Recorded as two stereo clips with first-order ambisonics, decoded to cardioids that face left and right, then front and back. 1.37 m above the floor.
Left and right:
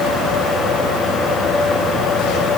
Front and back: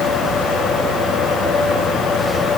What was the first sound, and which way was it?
Only background noise.